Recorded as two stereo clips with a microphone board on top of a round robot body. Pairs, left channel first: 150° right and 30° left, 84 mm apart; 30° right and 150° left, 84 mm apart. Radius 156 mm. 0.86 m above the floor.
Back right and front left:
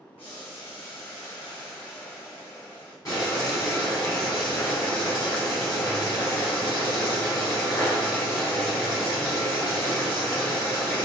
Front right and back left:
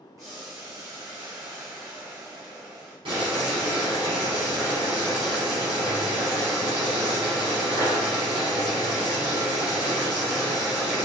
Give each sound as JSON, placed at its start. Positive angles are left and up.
{"t": 0.2, "sound": "boiling", "azimuth_deg": -160, "distance_m": 1.1}
{"t": 3.0, "sound": "boiling", "azimuth_deg": 160, "distance_m": 1.2}